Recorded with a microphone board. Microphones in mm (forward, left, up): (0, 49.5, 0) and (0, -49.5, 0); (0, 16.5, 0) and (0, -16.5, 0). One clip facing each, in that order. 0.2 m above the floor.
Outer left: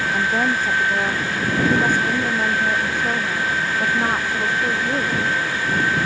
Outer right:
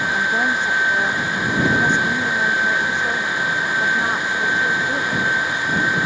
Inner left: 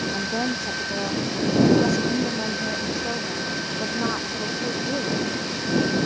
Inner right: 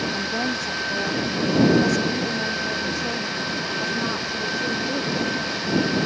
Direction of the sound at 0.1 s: 5° left (ahead or behind).